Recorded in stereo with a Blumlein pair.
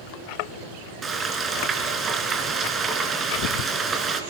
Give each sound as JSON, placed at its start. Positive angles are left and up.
{"t": 1.0, "sound": "frying", "azimuth_deg": -20, "distance_m": 3.0}